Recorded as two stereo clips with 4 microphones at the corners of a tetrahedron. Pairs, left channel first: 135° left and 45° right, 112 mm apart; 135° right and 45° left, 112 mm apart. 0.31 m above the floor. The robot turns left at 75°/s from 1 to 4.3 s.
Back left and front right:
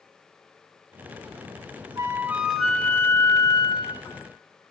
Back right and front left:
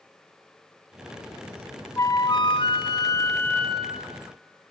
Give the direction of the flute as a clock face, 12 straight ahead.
3 o'clock.